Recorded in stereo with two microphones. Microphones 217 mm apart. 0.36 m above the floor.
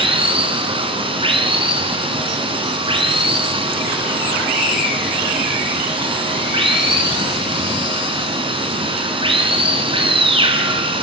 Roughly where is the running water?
Right.